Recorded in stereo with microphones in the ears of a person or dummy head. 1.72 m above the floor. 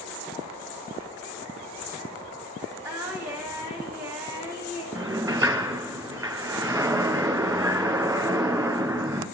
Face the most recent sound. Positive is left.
turn(degrees=-15)  # may be behind; listen again after turning